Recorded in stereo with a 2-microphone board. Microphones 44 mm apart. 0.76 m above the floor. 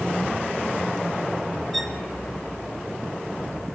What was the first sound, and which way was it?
A violin, 5° left (ahead or behind).